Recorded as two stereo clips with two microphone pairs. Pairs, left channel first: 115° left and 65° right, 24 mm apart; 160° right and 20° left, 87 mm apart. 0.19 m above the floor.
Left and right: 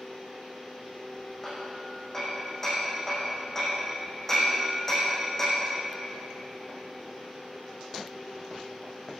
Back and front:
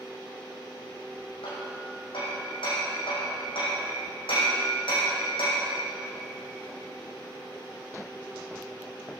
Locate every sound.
1.4 s hammering: 165° right, 7.5 m